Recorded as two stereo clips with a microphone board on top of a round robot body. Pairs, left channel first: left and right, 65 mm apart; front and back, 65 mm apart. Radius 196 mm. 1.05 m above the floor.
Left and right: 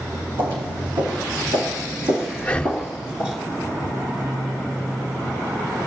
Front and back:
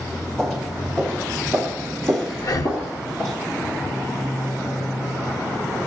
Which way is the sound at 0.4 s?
85° right.